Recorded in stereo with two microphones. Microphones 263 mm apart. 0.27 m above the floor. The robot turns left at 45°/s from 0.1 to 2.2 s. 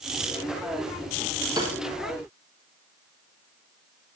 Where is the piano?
15° right (ahead or behind), 4.5 m; by 1.8 s 25° right (ahead or behind), 4.5 m.